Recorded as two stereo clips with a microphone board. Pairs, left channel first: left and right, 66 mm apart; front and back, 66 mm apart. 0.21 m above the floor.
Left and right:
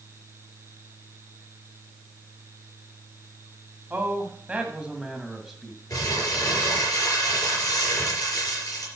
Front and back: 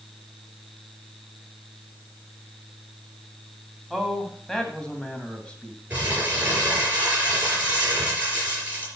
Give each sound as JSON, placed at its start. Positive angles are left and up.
{"t": 3.9, "sound": "a man speaking", "azimuth_deg": -85, "distance_m": 1.7}
{"t": 5.9, "sound": "crumpling", "azimuth_deg": 115, "distance_m": 4.0}